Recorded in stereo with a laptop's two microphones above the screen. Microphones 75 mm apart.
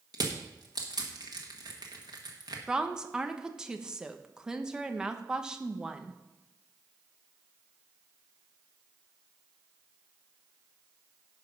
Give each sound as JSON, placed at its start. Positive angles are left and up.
{"t": 0.1, "sound": "crushing", "side_deg": -60, "distance_m": 1.6}
{"t": 2.7, "sound": "a woman speaking", "side_deg": -10, "distance_m": 0.7}